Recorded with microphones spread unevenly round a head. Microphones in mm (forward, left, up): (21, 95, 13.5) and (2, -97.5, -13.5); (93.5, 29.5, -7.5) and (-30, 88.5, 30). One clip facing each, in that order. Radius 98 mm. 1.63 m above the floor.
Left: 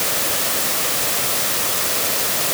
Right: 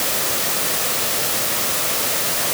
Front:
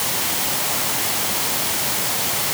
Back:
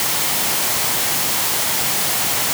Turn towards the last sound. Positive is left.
No sound to turn to.